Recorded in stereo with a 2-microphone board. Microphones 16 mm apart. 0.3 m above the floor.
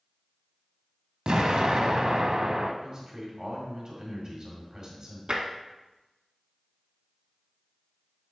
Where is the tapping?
65° right (ahead or behind), 0.9 m.